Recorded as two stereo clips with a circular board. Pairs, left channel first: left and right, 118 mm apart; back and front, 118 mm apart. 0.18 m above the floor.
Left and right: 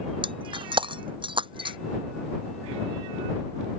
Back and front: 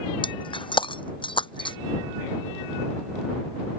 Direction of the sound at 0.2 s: 135° right.